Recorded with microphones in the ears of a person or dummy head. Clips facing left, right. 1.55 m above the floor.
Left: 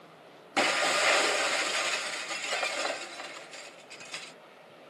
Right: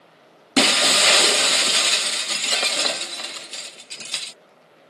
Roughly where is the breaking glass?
Right.